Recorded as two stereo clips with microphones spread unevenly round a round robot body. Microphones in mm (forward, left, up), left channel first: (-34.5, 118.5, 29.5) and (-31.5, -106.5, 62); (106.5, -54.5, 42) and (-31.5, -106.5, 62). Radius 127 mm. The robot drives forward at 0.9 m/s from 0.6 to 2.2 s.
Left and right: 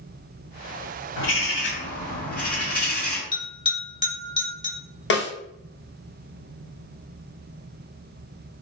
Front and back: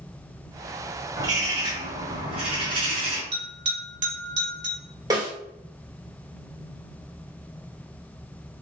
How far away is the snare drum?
About 1.2 m.